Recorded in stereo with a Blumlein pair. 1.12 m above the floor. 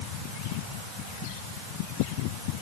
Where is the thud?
No thud in this recording.